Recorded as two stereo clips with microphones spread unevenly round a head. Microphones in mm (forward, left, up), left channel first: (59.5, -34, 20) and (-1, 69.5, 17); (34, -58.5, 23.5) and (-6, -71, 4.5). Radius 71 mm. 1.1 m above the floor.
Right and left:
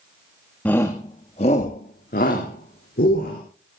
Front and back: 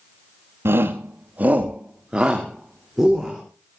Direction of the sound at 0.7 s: 140° right.